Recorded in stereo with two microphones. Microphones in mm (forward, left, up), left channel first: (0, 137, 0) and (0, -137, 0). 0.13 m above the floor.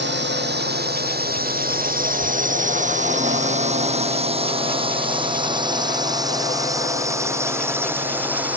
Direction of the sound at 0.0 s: 40° right (ahead or behind).